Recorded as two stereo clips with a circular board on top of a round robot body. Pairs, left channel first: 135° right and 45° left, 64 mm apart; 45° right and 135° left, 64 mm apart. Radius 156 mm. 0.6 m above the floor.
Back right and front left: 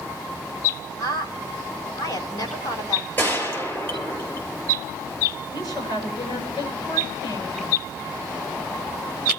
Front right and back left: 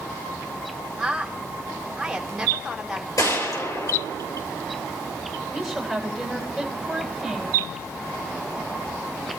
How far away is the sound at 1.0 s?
About 5 m.